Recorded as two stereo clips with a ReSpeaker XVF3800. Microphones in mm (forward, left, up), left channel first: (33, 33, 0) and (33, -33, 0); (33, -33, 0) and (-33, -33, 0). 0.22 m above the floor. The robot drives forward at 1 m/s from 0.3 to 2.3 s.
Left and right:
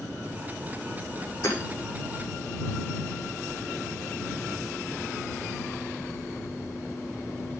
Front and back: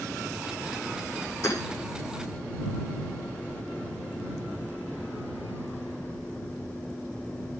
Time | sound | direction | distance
1.4 | hammering | 45° left | 8.5 m